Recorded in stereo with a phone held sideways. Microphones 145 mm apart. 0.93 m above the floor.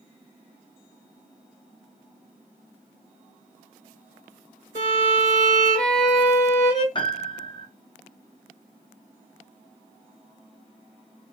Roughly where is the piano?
Left.